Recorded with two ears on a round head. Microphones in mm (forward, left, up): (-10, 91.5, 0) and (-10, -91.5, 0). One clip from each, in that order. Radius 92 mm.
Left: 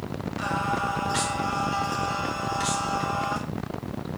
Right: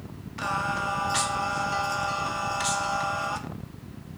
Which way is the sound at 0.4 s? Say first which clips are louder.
Even; 30° right (ahead or behind).